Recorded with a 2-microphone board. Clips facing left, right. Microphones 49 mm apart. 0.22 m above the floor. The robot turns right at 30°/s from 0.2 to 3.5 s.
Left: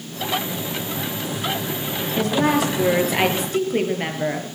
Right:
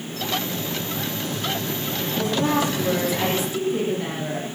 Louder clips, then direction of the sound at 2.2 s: Left 3 dB; 75° left.